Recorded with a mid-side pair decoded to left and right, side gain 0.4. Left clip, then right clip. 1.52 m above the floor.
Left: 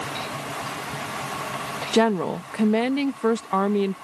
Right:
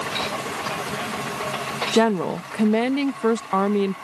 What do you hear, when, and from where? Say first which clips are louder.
1.9 s a woman speaking: even; 5° right